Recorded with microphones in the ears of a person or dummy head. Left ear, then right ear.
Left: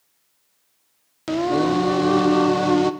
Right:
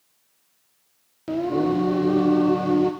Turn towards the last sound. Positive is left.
turn(degrees=45)  # may be behind; listen again after turning